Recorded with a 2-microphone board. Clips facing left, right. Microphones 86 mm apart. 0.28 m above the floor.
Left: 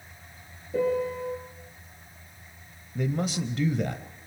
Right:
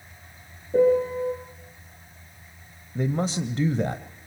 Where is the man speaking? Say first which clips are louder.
Right 3 dB; 35° right (ahead or behind), 1.1 m.